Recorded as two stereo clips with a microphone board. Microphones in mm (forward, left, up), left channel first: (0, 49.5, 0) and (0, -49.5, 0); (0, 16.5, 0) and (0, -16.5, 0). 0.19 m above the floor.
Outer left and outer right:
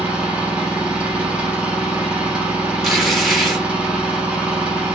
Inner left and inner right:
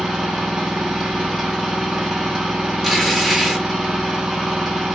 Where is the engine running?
10° right (ahead or behind), 1.5 m.